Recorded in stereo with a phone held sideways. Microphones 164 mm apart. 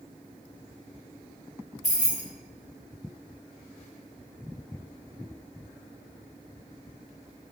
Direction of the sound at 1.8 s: 50° left (ahead or behind).